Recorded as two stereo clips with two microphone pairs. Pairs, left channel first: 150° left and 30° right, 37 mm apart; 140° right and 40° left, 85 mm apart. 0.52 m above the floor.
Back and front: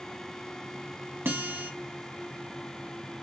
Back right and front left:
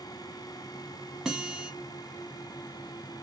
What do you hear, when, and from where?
1.2 s a guitar: 40° right, 1.0 m